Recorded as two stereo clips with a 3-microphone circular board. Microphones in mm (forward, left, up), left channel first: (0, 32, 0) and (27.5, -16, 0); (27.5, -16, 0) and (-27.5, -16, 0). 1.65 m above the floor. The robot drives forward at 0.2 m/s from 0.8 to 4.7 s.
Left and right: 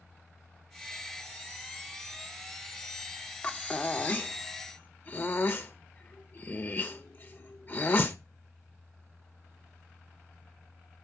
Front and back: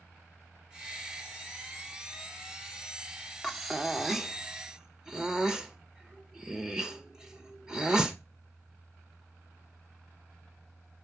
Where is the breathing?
85° left, 0.9 m; by 8.2 s 110° left, 1.0 m.